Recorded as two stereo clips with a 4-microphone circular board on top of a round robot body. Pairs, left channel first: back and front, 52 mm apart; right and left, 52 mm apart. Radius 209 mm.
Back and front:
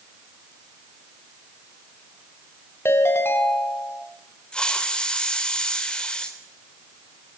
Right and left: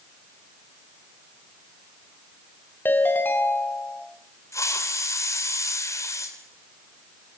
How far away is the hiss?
About 3.5 m.